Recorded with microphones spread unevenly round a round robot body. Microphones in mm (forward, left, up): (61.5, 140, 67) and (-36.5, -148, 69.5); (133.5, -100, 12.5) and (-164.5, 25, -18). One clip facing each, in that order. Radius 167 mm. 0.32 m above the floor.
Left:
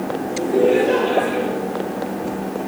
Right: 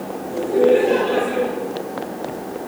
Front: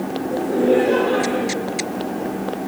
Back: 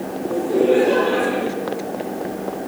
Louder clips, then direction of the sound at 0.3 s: Right 1 dB, back 1 dB; 135° left.